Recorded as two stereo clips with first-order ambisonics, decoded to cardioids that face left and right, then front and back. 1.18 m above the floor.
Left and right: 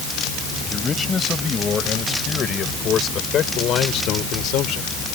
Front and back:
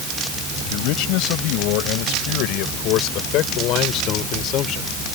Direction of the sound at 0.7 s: 15° left.